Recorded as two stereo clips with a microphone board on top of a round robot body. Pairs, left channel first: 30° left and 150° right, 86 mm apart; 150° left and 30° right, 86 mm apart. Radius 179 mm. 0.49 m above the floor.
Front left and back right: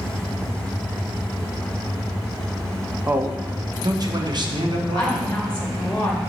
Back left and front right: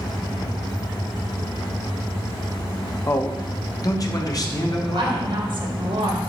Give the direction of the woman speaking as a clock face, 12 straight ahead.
2 o'clock.